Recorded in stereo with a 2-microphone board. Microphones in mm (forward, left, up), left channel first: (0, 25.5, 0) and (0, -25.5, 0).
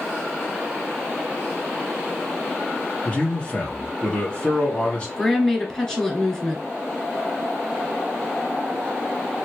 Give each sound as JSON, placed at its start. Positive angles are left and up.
{"t": 3.0, "sound": "a man speaking", "side_deg": 25, "distance_m": 1.6}
{"t": 5.2, "sound": "a woman speaking", "side_deg": 10, "distance_m": 1.5}